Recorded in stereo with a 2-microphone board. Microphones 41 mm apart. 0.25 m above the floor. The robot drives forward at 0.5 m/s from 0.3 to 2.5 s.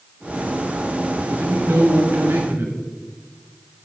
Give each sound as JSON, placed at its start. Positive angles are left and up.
{"t": 1.3, "sound": "a man speaking", "side_deg": -70, "distance_m": 3.0}